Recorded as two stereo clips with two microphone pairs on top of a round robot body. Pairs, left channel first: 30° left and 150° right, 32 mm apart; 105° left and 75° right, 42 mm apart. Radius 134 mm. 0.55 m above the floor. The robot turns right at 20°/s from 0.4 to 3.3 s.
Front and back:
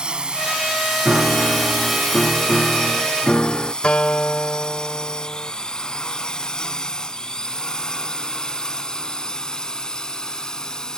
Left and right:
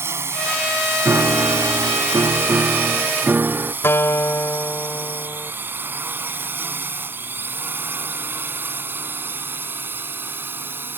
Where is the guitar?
85° left.